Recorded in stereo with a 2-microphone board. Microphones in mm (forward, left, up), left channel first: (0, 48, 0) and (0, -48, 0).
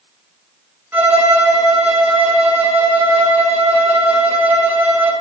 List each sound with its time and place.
0.9 s a violin: 20° right (ahead or behind), 0.5 m